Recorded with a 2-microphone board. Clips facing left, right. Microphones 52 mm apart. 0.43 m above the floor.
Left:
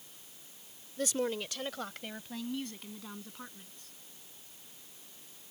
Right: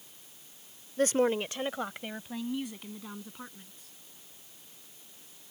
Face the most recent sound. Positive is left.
turn(degrees=-5)  # may be behind; listen again after turning